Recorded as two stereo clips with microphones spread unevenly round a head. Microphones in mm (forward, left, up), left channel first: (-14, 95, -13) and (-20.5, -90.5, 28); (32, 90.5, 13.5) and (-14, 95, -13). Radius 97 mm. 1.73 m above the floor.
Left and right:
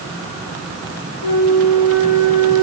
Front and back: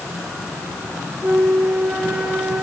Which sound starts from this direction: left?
A flute, at 1.2 s.